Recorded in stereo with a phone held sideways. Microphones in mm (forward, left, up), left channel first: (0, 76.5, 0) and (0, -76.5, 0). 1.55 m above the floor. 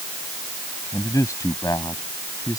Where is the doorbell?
No doorbell in this recording.